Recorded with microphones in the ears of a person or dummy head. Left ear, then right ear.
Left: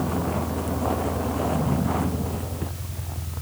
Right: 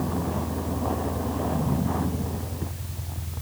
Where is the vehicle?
20° left (ahead or behind).